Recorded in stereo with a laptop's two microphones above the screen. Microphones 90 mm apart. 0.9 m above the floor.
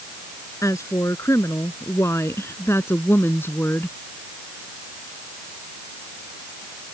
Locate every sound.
0.6 s a woman speaking: 35° left (ahead or behind); by 4.0 s 25° left (ahead or behind)